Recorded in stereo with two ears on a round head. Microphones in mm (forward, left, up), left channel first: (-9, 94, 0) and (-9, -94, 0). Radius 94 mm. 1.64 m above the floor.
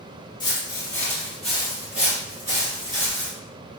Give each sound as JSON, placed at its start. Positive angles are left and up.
{"t": 0.4, "sound": "footsteps", "side_deg": 25, "distance_m": 1.7}